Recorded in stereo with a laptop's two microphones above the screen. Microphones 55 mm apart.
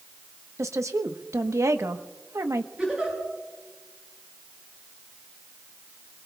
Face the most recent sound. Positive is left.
turn(degrees=-20)  # may be behind; listen again after turning